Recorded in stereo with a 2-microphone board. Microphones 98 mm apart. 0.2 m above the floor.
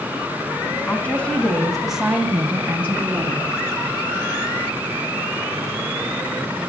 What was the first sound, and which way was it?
A woman speaking, 20° left (ahead or behind).